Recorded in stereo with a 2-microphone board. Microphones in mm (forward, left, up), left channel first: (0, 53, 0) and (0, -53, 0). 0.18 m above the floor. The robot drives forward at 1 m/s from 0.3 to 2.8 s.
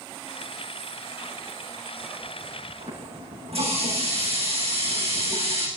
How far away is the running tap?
About 8 m.